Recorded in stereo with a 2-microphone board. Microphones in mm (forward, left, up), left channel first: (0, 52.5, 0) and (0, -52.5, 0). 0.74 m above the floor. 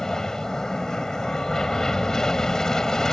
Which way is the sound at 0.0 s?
5° left (ahead or behind).